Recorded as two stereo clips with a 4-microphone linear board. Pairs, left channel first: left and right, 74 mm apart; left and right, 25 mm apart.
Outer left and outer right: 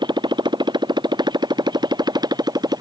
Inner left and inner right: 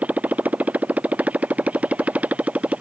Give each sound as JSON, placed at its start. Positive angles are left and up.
{"t": 0.0, "sound": "a motorcycle", "side_deg": -85}